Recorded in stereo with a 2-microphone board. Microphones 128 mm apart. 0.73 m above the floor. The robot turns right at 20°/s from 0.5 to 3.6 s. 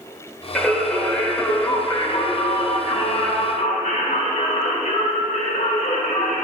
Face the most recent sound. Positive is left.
turn(degrees=65)